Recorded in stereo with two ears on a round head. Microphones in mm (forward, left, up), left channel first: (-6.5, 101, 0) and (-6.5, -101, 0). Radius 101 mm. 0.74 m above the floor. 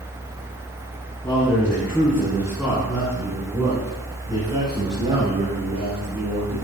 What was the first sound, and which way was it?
A man speaking, 10° left (ahead or behind).